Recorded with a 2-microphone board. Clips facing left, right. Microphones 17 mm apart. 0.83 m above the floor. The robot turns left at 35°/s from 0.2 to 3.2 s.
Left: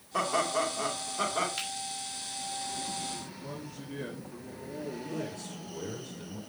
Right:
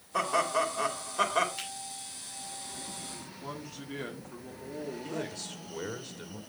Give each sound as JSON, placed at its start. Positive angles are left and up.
{"t": 0.1, "sound": "laughter", "azimuth_deg": -5, "distance_m": 2.5}
{"t": 1.6, "sound": "a finger snap", "side_deg": 45, "distance_m": 5.0}
{"t": 3.2, "sound": "a man speaking", "side_deg": -45, "distance_m": 1.6}
{"t": 5.0, "sound": "a man speaking", "side_deg": -60, "distance_m": 1.8}